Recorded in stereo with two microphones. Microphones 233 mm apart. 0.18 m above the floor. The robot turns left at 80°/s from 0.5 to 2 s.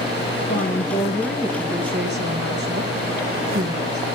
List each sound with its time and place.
0.3 s a woman speaking: 65° left, 2 m; by 4.0 s 55° right, 2 m